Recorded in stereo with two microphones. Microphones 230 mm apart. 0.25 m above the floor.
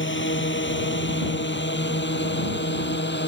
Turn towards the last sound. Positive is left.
turn(degrees=50)  # may be behind; listen again after turning